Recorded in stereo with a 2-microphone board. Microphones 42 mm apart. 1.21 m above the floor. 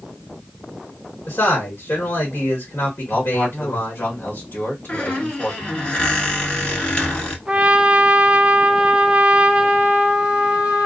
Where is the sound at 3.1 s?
55° left (ahead or behind), 1.2 m.